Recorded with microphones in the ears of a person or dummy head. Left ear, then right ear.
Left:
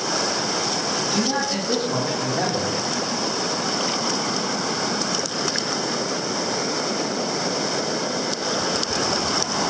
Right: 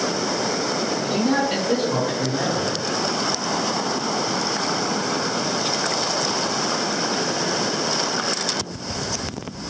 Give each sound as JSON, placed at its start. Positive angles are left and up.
{"t": 1.0, "sound": "a man speaking", "side_deg": -45, "distance_m": 1.1}